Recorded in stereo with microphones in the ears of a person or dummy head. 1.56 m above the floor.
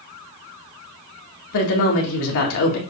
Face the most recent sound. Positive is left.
turn(degrees=65)  # may be behind; listen again after turning